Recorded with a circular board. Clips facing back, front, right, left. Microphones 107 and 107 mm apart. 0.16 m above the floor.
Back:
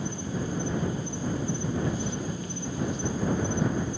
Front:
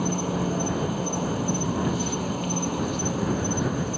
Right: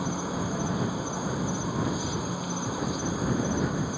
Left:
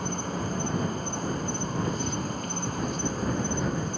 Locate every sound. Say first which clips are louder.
0.0 s an insect: front 6 dB, right 1 dB; 5° right